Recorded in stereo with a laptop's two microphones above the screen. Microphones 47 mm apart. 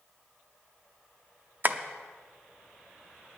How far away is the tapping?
About 0.7 m.